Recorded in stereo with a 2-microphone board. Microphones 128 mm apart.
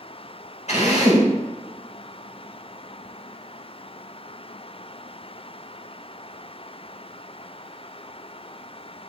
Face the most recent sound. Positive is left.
turn(degrees=60)  # may be behind; listen again after turning